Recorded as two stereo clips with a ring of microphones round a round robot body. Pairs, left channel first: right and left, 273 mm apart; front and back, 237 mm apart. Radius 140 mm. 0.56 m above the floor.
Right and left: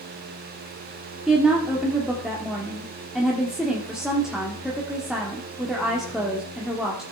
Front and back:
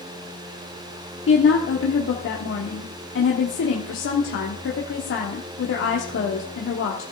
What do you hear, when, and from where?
1.3 s a woman speaking: 5° left, 1.3 m